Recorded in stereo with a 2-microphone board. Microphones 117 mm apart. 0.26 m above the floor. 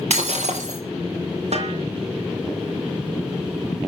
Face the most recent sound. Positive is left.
turn(degrees=-65)  # may be behind; listen again after turning